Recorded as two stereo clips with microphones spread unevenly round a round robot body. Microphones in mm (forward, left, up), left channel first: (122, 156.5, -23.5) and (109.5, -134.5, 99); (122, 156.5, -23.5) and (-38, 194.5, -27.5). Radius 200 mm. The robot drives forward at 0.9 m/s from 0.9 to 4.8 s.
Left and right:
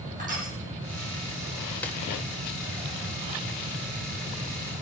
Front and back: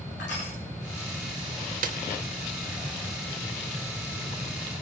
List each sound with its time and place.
0.2 s crushing: 30° right, 9 m
1.8 s a snare drum: 155° left, 0.7 m; by 2.0 s 160° left, 0.8 m